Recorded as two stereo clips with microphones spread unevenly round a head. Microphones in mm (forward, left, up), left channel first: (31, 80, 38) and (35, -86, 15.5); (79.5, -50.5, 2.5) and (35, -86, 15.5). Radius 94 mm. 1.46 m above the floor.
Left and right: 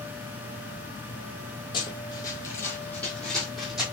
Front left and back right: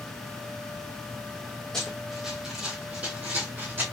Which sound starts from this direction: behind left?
Running footsteps, at 1.7 s.